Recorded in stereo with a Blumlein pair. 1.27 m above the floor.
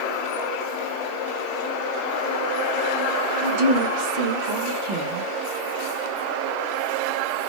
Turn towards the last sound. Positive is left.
turn(degrees=-50)